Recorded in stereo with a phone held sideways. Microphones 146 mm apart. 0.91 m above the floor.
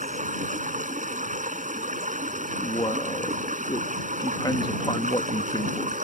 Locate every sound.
0.0 s running water: 60° right (ahead or behind)
2.6 s a man speaking: 30° left (ahead or behind)